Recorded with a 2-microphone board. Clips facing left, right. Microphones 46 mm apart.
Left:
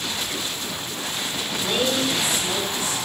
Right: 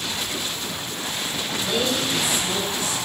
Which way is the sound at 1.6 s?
40° left (ahead or behind).